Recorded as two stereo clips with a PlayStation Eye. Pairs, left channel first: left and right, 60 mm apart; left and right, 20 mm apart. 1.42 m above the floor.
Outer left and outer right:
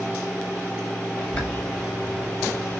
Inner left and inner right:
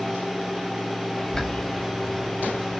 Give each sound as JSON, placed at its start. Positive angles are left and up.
{"t": 1.2, "sound": "a bird", "side_deg": 20, "distance_m": 5.5}